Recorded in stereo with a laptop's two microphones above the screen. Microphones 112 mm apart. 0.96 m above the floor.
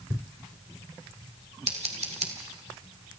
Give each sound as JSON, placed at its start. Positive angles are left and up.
{"t": 1.7, "sound": "scissors", "side_deg": -70, "distance_m": 1.9}